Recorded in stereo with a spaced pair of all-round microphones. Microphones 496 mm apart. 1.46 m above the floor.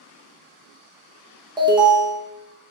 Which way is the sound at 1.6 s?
10° right (ahead or behind).